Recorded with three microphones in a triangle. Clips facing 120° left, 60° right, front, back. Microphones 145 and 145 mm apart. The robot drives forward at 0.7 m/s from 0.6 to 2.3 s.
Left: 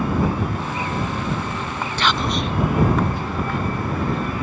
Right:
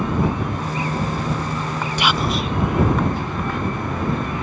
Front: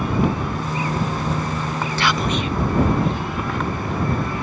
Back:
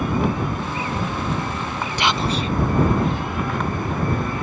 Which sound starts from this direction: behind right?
Whispering, at 2.0 s.